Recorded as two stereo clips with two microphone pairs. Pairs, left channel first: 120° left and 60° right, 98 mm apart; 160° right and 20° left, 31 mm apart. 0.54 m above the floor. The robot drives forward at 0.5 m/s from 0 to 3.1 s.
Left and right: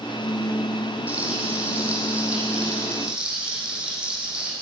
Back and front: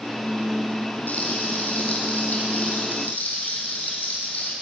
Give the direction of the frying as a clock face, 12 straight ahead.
4 o'clock.